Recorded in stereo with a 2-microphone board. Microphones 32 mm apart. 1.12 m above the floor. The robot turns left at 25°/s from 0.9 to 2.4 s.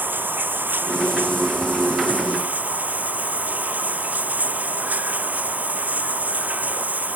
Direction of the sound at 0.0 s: 85° right.